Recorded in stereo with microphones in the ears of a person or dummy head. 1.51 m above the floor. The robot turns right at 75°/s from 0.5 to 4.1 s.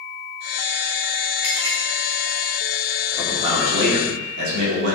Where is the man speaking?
170° right, 3.5 m; by 5.0 s 100° right, 3.5 m.